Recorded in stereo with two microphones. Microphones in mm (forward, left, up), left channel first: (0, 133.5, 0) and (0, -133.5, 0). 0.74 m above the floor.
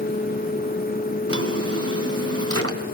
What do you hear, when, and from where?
1.3 s a drawer: 60° right (ahead or behind), 2.0 m